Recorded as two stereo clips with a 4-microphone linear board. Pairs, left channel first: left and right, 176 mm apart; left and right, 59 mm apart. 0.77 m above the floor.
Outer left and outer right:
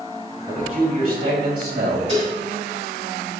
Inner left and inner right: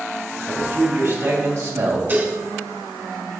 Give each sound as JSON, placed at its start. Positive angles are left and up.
{"t": 0.5, "sound": "a man speaking", "side_deg": -50, "distance_m": 4.0}
{"t": 2.1, "sound": "dishes clattering", "side_deg": -40, "distance_m": 2.0}